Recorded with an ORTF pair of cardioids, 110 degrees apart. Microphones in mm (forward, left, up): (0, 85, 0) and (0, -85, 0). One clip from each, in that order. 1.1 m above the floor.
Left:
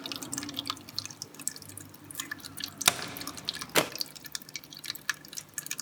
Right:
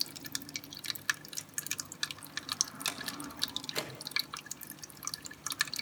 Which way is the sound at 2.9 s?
60° left.